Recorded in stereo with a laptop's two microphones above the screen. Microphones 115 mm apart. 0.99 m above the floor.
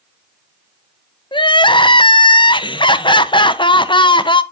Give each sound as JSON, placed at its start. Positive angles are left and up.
{"t": 1.3, "sound": "crying", "side_deg": 45, "distance_m": 0.5}